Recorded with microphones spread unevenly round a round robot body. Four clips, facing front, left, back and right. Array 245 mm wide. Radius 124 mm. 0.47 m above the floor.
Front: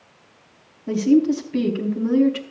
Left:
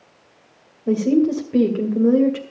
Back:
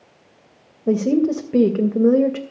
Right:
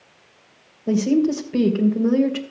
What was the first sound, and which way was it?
A woman speaking, 175° left.